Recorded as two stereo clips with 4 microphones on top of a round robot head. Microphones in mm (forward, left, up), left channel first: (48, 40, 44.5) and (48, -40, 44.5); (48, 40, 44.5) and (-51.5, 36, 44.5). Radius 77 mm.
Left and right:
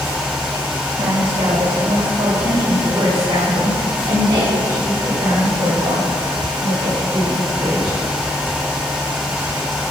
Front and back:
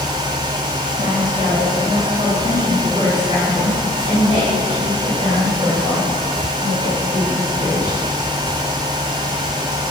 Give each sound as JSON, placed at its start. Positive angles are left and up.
{"t": 1.0, "sound": "a woman speaking", "azimuth_deg": -120, "distance_m": 4.0}